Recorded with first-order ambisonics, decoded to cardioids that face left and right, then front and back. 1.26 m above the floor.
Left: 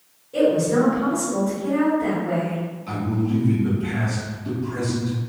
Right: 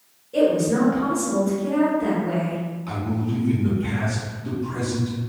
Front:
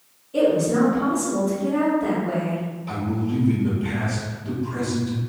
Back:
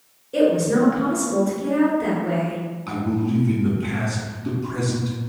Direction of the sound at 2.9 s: 175° right.